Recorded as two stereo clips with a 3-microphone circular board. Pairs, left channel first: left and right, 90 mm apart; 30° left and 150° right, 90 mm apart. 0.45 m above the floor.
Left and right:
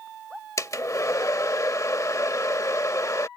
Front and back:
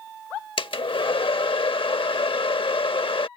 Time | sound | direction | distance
0.6 | a hair dryer | 40° left | ?